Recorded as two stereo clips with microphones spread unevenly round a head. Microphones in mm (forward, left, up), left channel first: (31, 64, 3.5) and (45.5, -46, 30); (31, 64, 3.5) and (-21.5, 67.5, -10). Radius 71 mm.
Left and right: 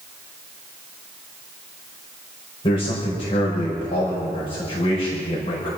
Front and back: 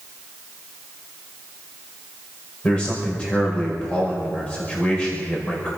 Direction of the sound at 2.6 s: 65° left.